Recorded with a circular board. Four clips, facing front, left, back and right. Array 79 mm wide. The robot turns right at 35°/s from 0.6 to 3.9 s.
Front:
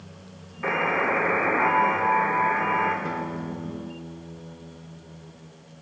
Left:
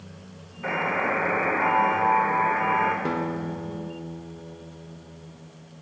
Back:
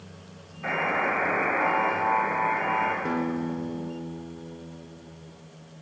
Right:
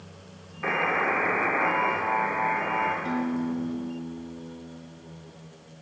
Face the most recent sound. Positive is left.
turn(degrees=120)